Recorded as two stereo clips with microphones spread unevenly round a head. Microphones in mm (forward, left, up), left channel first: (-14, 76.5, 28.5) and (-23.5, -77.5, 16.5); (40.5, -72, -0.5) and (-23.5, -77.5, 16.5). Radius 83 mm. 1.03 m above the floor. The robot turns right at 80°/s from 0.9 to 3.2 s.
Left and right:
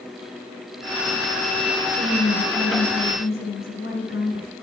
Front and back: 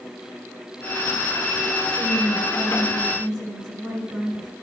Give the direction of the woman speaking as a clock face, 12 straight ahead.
12 o'clock.